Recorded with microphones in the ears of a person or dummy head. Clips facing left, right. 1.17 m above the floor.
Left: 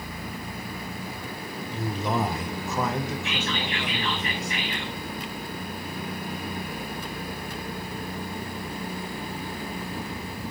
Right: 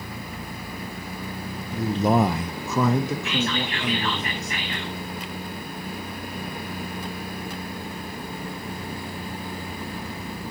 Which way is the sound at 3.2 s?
40° right (ahead or behind).